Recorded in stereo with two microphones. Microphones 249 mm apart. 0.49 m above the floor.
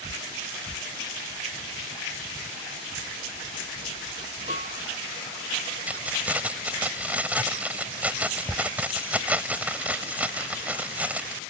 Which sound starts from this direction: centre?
Keys jangling, at 5.9 s.